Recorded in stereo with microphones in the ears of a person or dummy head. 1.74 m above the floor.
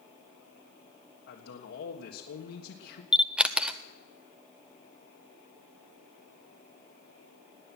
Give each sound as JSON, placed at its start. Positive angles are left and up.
{"t": 1.3, "sound": "a man speaking", "side_deg": 80, "distance_m": 1.4}
{"t": 3.1, "sound": "a camera shutter", "side_deg": 0, "distance_m": 0.5}